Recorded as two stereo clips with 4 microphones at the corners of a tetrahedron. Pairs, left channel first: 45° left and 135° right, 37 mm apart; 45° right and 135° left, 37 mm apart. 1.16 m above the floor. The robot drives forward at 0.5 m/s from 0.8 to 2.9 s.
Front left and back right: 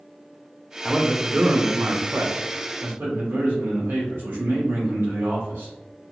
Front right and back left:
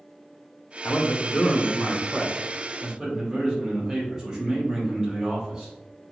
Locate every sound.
0.8 s a man speaking: 55° right, 0.6 m; by 5.7 s 145° right, 0.8 m